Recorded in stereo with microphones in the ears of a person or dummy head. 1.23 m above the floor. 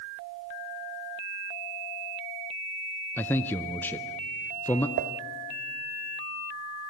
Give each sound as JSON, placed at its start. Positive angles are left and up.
{"t": 3.2, "sound": "a man speaking", "side_deg": 10, "distance_m": 0.6}
{"t": 5.0, "sound": "dishes clattering", "side_deg": -50, "distance_m": 0.6}